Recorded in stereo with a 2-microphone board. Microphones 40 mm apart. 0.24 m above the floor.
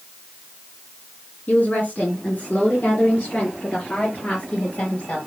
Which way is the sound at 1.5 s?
45° left (ahead or behind).